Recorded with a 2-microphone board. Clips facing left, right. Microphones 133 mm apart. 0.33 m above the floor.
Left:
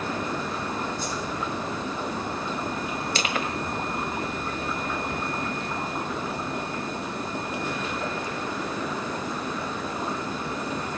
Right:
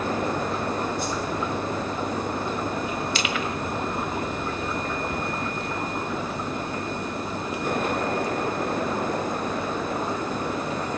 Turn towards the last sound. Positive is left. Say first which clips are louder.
# right 1 dB
turn(degrees=40)  # may be behind; listen again after turning